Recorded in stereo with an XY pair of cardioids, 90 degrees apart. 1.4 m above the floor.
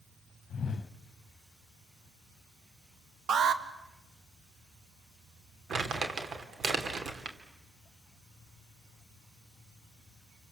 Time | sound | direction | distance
0.5 | a whoosh | 50° left | 1.2 m
3.3 | an alarm | 70° right | 1.6 m
5.7 | crumpling | 55° right | 2.5 m